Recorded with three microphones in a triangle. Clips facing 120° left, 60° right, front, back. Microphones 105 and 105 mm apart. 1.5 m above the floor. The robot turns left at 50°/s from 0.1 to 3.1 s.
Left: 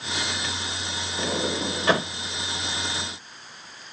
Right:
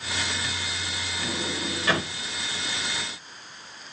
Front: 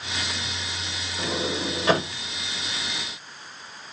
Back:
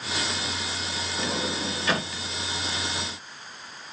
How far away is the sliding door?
About 1.2 m.